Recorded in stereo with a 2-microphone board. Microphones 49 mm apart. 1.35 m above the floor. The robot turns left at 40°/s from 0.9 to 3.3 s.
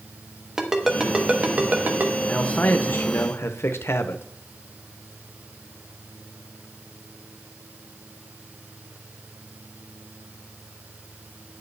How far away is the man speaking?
About 0.7 m.